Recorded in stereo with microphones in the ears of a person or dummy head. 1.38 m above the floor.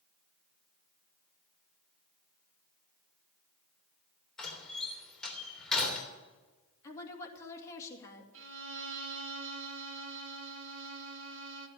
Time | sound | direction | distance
4.4 | a door slam | 5° left (ahead or behind) | 3.5 m
6.8 | a woman speaking | 15° left (ahead or behind) | 2.5 m
8.3 | a violin | 75° right (ahead or behind) | 1.8 m